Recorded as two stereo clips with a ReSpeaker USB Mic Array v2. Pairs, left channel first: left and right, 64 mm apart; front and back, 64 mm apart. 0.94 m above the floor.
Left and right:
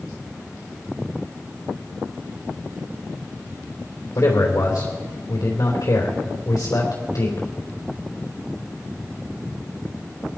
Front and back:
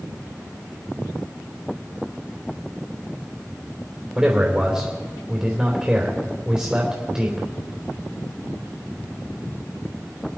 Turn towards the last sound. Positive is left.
turn(degrees=110)